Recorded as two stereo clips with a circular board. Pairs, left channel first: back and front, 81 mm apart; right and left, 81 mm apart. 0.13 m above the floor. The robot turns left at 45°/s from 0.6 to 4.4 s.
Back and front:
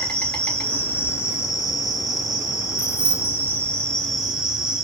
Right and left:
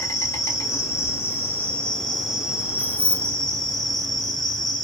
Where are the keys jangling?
15° right, 0.9 m; by 3.3 s 35° right, 0.9 m.